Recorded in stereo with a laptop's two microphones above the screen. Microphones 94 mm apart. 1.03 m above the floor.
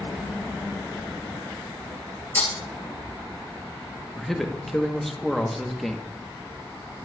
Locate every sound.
2.4 s breaking glass: 20° left (ahead or behind), 3 m
4.2 s a man speaking: centre (ahead or behind), 1.2 m